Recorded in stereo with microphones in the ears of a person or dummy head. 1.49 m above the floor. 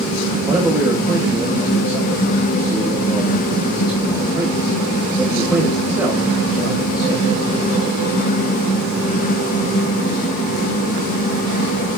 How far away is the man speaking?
About 1.2 m.